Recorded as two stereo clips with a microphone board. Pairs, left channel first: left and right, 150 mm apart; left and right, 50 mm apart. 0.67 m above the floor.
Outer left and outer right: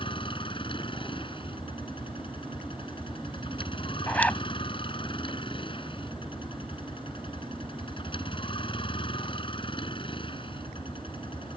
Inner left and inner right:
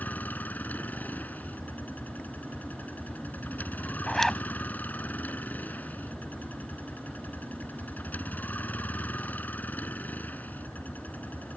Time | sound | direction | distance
0.0 | a vehicle | 35° left (ahead or behind) | ?
4.1 | a zipper | 10° left (ahead or behind) | ?